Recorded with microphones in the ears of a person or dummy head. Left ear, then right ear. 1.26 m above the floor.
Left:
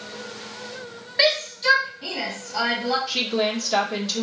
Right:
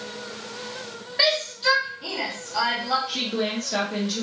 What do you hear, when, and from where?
1.2 s a shout: 10° left (ahead or behind), 1.7 m
3.1 s a woman speaking: 25° left (ahead or behind), 1.1 m